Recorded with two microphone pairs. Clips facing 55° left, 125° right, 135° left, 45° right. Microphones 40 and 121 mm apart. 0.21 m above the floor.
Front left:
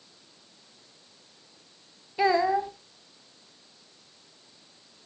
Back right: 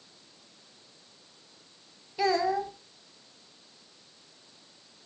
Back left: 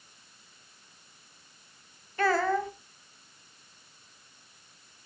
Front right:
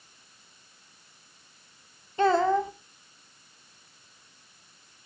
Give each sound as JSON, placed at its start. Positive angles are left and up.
{"t": 2.2, "sound": "a child speaking", "azimuth_deg": 5, "distance_m": 1.2}